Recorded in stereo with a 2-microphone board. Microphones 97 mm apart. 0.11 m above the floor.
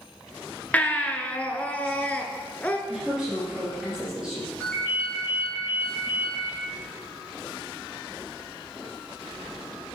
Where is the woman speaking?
5° right (ahead or behind), 2.5 m.